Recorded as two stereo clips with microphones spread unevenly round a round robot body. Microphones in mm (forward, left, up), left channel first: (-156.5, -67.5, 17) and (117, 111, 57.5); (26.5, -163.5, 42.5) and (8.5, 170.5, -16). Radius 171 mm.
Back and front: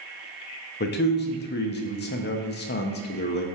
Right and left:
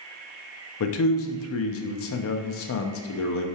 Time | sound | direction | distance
0.8 | a man speaking | 125° right | 0.7 m